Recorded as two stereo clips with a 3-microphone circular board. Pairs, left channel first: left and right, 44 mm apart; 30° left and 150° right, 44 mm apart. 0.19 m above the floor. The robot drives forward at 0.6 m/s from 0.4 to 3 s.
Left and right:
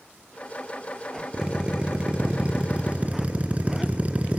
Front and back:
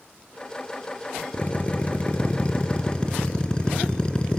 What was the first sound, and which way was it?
A drill, 25° right.